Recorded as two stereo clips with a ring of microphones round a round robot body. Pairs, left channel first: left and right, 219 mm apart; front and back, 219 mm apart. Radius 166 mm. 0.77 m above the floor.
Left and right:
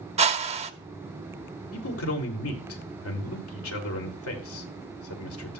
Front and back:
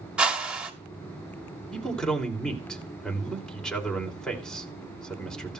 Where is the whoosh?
100° right, 1.1 m.